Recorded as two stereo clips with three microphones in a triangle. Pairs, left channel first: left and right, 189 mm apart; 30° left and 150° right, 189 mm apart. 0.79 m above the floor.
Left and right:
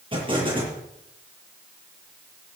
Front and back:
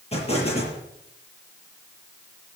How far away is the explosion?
About 7.5 m.